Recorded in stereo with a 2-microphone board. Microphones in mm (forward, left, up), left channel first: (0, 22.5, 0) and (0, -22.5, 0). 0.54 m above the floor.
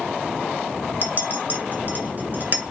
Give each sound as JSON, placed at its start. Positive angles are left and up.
{"t": 1.0, "sound": "a clink", "side_deg": -40, "distance_m": 0.9}